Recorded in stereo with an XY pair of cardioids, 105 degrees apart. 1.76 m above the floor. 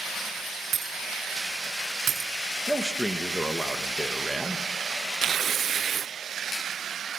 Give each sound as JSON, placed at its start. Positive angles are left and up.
{"t": 0.7, "sound": "breaking glass", "azimuth_deg": -55, "distance_m": 6.0}
{"t": 2.7, "sound": "a man speaking", "azimuth_deg": 0, "distance_m": 2.0}
{"t": 5.2, "sound": "tearing paper", "azimuth_deg": -50, "distance_m": 0.8}